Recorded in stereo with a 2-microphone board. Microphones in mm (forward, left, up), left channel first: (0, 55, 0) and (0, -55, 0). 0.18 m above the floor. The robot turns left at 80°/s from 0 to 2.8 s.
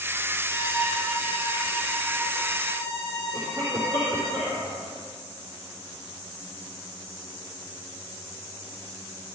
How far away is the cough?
About 4.5 m.